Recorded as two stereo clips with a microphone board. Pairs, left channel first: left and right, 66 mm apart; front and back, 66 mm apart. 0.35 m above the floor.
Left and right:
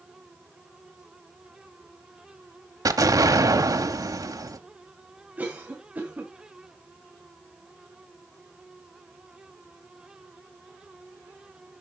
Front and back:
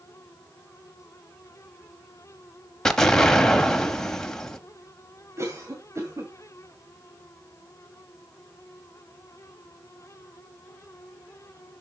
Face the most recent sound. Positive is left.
turn(degrees=-150)